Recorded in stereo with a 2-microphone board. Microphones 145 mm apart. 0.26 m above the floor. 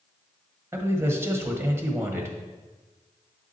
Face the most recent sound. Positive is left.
turn(degrees=-20)  # may be behind; listen again after turning